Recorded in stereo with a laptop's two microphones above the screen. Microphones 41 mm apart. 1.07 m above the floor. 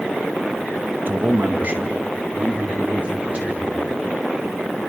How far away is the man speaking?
About 1.2 m.